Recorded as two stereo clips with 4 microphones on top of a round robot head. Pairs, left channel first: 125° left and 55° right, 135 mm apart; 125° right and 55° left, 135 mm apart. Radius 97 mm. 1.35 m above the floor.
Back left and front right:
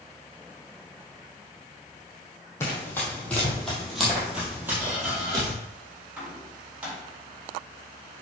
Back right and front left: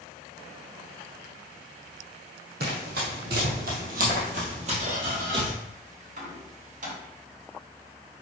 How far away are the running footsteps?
About 2.5 m.